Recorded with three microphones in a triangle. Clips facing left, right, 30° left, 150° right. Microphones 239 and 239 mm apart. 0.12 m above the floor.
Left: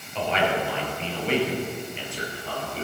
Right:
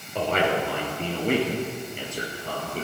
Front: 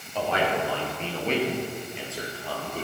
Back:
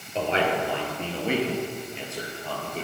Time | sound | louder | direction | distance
0.1 | a man speaking | right 1 dB, back 1 dB | 95° right | 1.9 m